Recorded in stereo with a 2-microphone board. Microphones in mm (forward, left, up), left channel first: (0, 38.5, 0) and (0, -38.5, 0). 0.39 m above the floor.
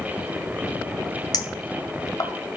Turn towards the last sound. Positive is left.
turn(degrees=60)  # may be behind; listen again after turning